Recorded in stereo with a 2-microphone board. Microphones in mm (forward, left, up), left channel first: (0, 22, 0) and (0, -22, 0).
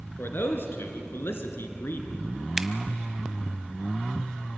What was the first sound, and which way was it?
A man speaking, 60° left (ahead or behind).